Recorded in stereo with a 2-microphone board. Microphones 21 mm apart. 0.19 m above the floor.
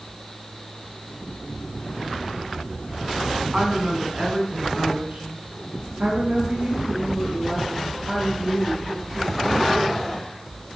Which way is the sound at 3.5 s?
40° right (ahead or behind).